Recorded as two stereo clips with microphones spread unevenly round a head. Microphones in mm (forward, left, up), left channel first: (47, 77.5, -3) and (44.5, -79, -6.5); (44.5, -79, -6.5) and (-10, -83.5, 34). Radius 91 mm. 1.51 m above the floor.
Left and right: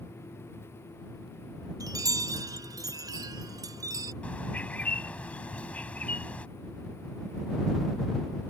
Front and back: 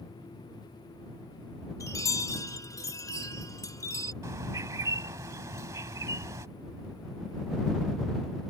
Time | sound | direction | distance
1.8 | a chime | 25° right | ?
4.2 | a bird | 170° left | ?